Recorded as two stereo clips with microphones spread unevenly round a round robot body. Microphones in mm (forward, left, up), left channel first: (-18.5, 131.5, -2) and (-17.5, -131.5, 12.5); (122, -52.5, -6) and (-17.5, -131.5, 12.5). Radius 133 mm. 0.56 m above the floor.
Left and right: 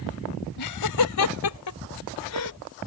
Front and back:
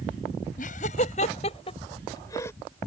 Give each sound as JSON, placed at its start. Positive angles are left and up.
{"t": 0.6, "sound": "laughter", "azimuth_deg": 85}